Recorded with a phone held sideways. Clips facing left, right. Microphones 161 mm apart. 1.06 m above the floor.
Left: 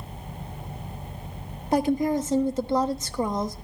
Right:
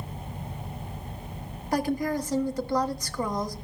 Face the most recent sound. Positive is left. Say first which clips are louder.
# left 4 dB
turn(degrees=25)  # may be behind; listen again after turning